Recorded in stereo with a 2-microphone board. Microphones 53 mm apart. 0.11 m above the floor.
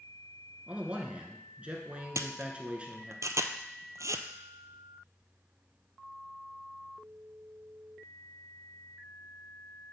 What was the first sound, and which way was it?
A man speaking, 20° right (ahead or behind).